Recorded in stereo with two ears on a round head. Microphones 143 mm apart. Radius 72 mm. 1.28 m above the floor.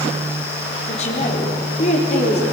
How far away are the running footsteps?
No running footsteps in this recording.